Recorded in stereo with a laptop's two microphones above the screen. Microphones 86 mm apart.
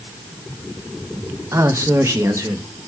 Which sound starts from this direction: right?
A man speaking, at 1.5 s.